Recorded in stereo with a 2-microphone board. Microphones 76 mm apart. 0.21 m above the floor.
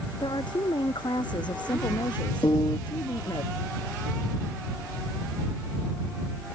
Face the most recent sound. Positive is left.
turn(degrees=75)  # may be behind; listen again after turning